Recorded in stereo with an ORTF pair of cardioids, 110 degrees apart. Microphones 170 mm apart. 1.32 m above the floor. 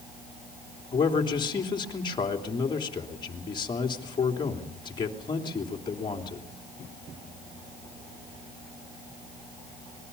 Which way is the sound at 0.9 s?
25° left.